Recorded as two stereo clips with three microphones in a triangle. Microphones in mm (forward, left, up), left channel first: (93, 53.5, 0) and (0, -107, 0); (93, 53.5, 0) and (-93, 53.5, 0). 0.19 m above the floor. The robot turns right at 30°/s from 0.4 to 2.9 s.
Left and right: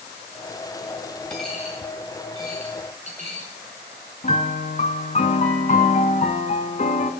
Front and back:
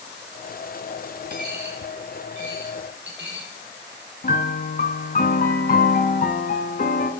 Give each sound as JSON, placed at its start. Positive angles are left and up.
{"t": 1.3, "sound": "a dropped coin", "azimuth_deg": 145, "distance_m": 2.5}
{"t": 4.2, "sound": "a piano", "azimuth_deg": 20, "distance_m": 0.7}